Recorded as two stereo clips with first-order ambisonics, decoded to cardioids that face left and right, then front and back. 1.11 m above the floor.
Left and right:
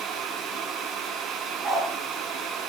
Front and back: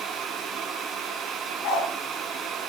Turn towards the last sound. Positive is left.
turn(degrees=-20)